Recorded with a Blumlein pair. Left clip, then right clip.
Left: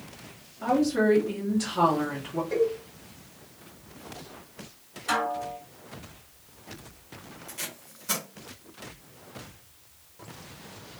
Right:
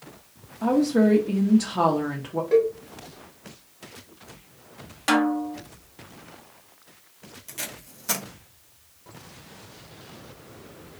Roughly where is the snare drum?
Ahead right.